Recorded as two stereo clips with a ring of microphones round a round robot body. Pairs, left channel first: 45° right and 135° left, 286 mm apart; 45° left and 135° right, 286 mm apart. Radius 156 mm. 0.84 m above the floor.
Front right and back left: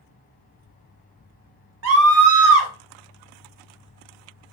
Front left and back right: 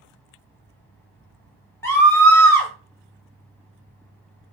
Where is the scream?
125° left, 1.3 m.